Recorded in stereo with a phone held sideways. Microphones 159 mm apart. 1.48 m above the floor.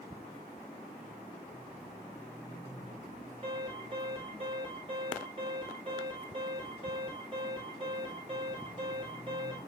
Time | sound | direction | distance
3.4 | an alarm | 30° right (ahead or behind) | 8 m